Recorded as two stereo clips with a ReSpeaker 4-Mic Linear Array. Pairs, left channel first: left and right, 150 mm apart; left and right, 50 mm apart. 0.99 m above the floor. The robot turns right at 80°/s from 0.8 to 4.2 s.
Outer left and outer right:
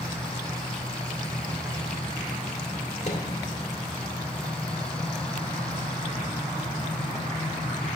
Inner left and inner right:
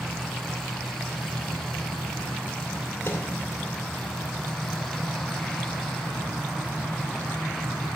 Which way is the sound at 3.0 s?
50° left (ahead or behind).